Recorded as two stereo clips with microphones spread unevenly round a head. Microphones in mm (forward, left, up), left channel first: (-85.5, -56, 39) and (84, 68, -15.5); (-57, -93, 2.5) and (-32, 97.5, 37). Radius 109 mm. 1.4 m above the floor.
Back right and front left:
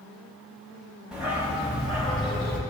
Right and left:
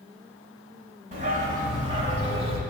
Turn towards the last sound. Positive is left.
turn(degrees=135)